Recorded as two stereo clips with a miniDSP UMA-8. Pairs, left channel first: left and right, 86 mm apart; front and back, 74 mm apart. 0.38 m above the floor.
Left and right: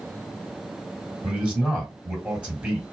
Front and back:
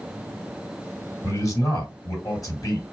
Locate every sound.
1.2 s a man speaking: 20° right, 2 m